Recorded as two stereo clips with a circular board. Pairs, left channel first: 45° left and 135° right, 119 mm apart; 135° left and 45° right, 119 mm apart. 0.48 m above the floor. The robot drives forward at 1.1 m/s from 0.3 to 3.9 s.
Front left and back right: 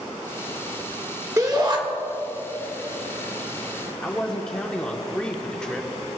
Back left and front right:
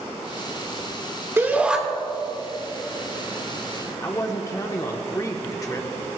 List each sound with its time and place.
1.4 s a shout: 95° right, 1.3 m; by 1.8 s 125° right, 1.4 m
4.0 s a man speaking: 120° left, 1.0 m